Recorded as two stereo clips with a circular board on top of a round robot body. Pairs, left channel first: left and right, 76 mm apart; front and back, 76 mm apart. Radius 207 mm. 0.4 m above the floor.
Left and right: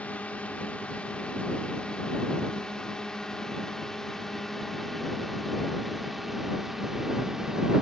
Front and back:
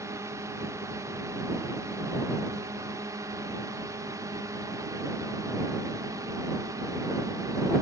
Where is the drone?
155° left; by 7.8 s 170° right.